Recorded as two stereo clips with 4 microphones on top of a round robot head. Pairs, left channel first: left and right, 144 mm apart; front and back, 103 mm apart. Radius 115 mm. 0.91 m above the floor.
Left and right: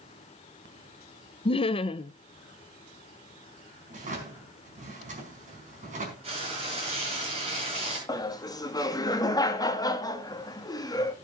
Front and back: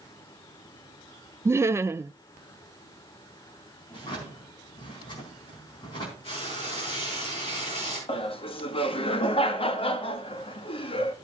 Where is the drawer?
55° right, 4.5 m.